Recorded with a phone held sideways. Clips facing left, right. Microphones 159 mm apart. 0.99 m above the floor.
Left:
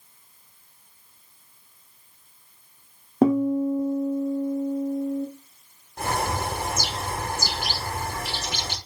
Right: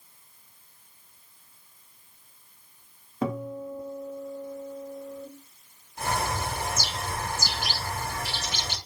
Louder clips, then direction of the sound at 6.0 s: Left 3 dB; 60° left (ahead or behind).